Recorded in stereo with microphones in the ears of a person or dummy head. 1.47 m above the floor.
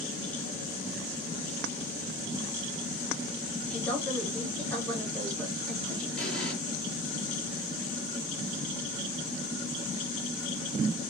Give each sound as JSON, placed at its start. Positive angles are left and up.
{"t": 3.6, "sound": "a woman speaking", "side_deg": 5, "distance_m": 2.5}
{"t": 6.2, "sound": "an explosion", "side_deg": 5, "distance_m": 2.5}